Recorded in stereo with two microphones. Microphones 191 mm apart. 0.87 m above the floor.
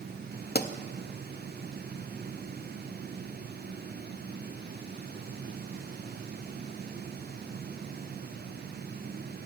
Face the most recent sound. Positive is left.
turn(degrees=55)  # may be behind; listen again after turning